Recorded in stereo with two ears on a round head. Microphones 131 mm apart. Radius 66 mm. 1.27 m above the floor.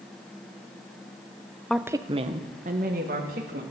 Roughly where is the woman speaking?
Centre.